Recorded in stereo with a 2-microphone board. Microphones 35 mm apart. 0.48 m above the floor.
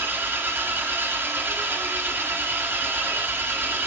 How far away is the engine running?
About 2 m.